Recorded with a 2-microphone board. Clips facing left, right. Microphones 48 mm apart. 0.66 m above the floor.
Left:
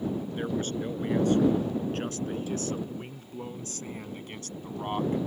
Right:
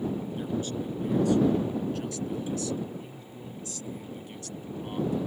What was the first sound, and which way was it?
A man speaking, 45° left (ahead or behind).